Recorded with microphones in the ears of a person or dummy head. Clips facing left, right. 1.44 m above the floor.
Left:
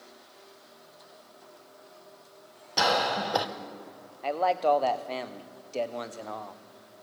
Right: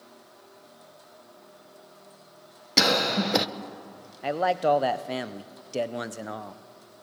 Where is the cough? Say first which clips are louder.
Right 2 dB; 30° right (ahead or behind), 1.1 m.